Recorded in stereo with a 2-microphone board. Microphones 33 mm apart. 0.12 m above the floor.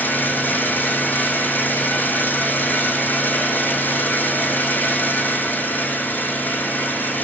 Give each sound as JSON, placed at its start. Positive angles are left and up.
{"t": 0.0, "sound": "an engine running", "side_deg": 70, "distance_m": 3.5}